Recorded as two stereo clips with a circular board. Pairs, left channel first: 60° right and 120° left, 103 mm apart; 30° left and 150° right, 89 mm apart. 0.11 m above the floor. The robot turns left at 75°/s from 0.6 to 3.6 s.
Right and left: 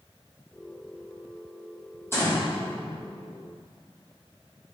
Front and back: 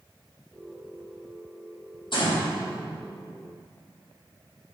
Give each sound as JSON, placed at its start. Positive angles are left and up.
{"t": 2.1, "sound": "a gunshot", "azimuth_deg": 5, "distance_m": 4.0}